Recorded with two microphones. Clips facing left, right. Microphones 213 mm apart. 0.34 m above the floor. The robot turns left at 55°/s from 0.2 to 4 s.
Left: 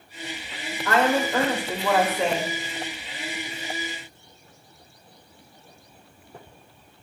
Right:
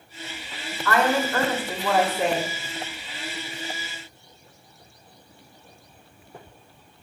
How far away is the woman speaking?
About 0.9 m.